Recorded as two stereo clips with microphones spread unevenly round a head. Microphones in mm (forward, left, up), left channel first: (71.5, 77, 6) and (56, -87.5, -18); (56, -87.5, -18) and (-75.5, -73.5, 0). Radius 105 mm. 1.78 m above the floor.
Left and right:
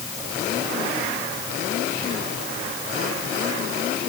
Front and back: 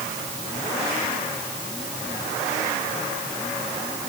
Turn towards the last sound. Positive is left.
No sound to turn to.